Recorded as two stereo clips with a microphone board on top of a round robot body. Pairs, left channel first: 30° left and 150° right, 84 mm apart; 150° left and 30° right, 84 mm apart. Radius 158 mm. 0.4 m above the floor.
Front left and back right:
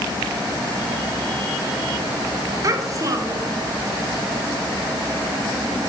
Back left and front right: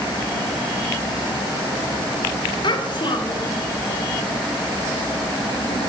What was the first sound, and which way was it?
A child speaking, 165° left.